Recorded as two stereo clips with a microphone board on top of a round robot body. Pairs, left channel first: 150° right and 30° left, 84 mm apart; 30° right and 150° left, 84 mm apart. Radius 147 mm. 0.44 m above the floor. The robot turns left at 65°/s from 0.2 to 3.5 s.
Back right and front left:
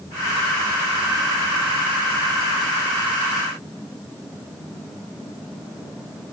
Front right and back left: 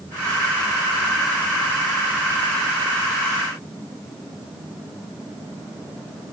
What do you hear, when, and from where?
Only background noise.